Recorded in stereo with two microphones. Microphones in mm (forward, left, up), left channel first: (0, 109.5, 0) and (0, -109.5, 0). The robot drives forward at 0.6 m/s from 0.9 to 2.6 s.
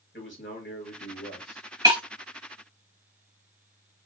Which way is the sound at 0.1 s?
60° left (ahead or behind).